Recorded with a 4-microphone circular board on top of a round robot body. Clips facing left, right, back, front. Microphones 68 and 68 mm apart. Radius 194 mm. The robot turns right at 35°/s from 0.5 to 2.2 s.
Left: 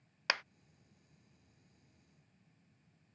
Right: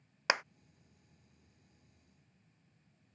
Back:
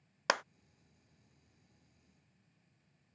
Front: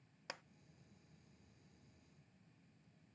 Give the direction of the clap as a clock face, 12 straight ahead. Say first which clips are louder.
Right 4 dB, back 20 dB; 5 o'clock.